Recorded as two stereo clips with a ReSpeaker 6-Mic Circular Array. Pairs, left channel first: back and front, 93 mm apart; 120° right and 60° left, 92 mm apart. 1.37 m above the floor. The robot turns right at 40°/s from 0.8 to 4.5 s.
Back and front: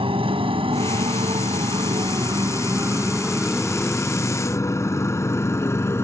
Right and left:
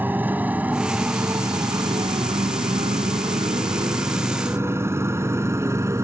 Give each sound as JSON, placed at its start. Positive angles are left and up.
{"t": 0.0, "sound": "a motorcycle", "azimuth_deg": -10}